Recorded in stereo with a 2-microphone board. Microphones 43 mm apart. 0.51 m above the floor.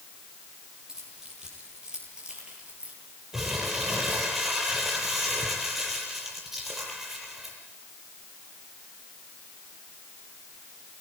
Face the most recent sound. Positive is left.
turn(degrees=-10)  # may be behind; listen again after turning